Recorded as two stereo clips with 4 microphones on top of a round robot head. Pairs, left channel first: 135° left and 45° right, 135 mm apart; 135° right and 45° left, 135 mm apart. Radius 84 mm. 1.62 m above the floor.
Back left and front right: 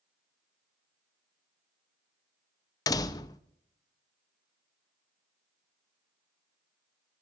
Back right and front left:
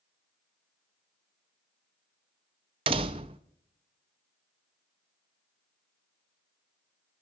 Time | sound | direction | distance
2.9 | a door slam | 80° left | 0.5 m